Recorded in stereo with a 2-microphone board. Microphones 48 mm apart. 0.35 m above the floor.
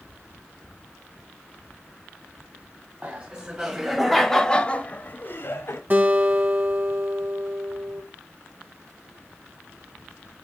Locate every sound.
3.0 s laughter: 25° right (ahead or behind), 1.9 m; by 5.8 s 60° left (ahead or behind), 1.6 m
5.9 s a guitar: 40° right (ahead or behind), 2 m